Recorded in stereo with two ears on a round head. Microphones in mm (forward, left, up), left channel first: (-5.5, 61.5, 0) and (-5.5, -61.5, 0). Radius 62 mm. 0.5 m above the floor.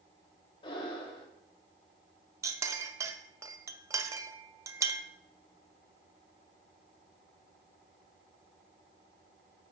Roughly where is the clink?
Right.